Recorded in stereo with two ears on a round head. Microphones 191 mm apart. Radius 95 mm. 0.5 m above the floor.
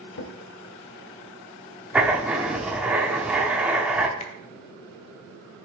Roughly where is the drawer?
Left.